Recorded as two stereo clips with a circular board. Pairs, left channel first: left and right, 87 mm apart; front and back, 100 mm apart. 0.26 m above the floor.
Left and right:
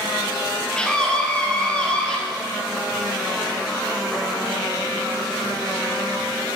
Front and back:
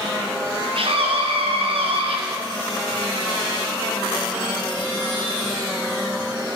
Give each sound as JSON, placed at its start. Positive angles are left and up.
{"t": 0.8, "sound": "a scream", "azimuth_deg": 170, "distance_m": 2.5}